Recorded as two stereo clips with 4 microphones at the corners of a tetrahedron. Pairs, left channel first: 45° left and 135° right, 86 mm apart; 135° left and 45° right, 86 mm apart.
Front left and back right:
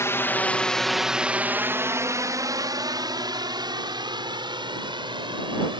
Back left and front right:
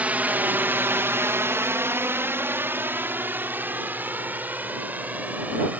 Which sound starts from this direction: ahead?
A drone, at 0.0 s.